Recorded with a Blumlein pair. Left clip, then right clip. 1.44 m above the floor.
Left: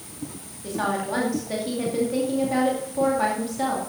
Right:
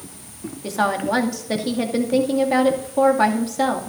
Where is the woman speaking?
65° right, 2 m.